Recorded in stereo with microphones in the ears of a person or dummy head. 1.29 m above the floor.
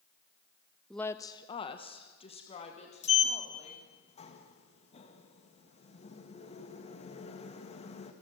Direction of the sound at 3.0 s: 30° left (ahead or behind).